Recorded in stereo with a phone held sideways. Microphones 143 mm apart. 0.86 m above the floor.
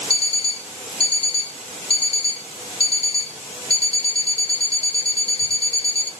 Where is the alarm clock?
40° left (ahead or behind), 1.7 m.